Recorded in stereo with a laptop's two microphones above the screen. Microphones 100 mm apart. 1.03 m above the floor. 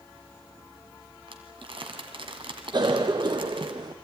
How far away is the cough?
About 0.8 m.